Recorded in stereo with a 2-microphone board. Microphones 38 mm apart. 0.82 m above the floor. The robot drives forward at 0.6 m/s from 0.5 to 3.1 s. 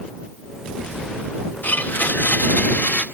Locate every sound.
1.6 s a blender: 50° left (ahead or behind), 1.2 m; by 3.0 s 40° left (ahead or behind), 1.5 m